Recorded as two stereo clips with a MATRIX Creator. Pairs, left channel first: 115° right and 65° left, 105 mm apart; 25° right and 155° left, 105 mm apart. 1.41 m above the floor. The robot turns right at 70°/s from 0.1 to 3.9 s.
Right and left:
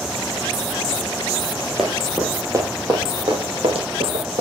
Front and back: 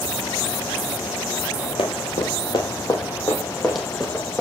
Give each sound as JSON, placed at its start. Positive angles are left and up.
{"t": 1.8, "sound": "running footsteps", "azimuth_deg": -20, "distance_m": 2.5}